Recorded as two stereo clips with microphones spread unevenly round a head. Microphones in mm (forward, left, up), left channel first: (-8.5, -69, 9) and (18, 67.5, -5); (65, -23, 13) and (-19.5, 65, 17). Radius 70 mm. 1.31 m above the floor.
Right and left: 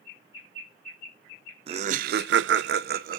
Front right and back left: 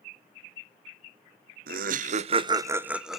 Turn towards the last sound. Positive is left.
turn(degrees=45)